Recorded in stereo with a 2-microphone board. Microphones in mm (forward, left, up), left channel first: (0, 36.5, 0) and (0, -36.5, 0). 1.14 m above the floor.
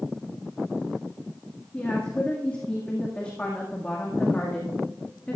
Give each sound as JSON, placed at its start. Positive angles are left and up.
{"t": 1.7, "sound": "a woman speaking", "side_deg": 20, "distance_m": 1.9}